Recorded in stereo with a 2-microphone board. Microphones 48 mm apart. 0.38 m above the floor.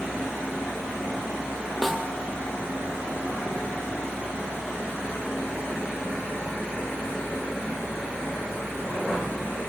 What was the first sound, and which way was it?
A snare drum, centre (ahead or behind).